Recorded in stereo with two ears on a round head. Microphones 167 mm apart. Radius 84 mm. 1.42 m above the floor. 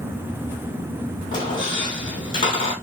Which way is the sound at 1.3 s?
30° left (ahead or behind).